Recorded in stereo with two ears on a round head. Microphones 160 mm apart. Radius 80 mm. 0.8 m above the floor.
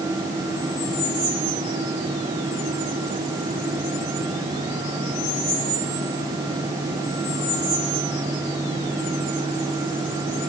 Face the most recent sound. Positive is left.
No sound to turn to.